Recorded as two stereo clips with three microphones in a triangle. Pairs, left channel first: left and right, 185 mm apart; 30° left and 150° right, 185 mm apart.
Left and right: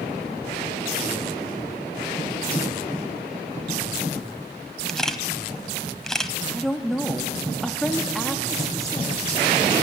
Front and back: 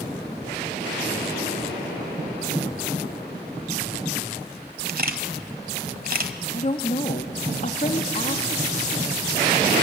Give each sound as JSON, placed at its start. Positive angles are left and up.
{"t": 4.9, "sound": "a camera shutter", "azimuth_deg": 180, "distance_m": 1.2}
{"t": 6.5, "sound": "a woman speaking", "azimuth_deg": 0, "distance_m": 1.2}